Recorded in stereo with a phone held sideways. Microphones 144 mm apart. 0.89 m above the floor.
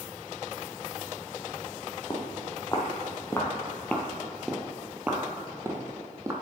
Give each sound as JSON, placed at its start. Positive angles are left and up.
{"t": 2.1, "sound": "footsteps", "side_deg": 25, "distance_m": 1.5}